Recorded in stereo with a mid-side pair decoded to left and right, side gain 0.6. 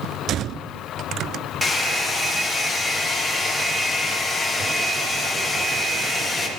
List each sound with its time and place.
1.6 s a hair dryer: 10° left, 1.2 m